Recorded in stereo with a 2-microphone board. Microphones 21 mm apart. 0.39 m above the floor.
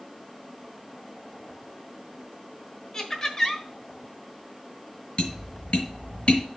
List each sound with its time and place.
2.9 s laughter: 25° left (ahead or behind), 1.3 m
5.2 s tapping: 50° left (ahead or behind), 1.8 m